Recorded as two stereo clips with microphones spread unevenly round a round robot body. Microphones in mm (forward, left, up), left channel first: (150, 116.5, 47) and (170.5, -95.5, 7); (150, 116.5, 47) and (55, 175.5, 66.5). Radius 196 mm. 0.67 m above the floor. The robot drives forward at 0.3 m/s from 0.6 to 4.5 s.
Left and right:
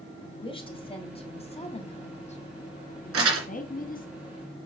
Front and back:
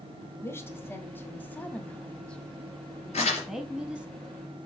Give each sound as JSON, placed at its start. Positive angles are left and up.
{"t": 0.2, "sound": "a woman speaking", "azimuth_deg": 25, "distance_m": 1.9}
{"t": 3.1, "sound": "crumpling", "azimuth_deg": -85, "distance_m": 2.5}